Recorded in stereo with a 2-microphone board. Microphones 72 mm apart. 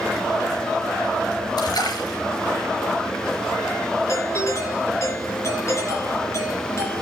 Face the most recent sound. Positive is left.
turn(degrees=40)  # may be behind; listen again after turning